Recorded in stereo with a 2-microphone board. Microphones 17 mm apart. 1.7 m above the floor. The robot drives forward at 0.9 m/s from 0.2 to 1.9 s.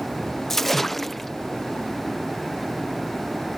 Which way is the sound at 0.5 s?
15° left (ahead or behind).